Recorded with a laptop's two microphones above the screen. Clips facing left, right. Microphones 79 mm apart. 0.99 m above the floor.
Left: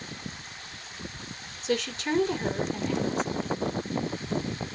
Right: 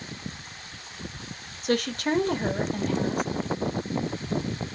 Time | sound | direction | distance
1.6 | a woman speaking | 50° right (ahead or behind) | 1.6 m